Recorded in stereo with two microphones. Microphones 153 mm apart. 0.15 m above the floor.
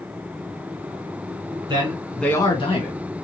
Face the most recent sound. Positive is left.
turn(degrees=50)  # may be behind; listen again after turning